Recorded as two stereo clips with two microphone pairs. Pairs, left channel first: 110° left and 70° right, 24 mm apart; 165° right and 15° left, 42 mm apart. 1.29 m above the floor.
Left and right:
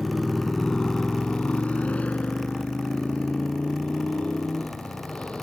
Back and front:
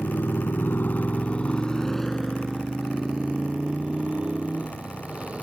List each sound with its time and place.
0.0 s a motorcycle: 165° right; by 5.4 s 75° left